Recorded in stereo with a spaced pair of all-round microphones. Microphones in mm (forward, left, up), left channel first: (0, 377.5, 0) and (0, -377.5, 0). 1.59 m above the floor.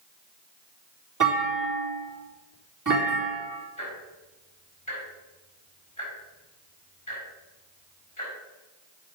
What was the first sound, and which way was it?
A clunk, 25° right (ahead or behind).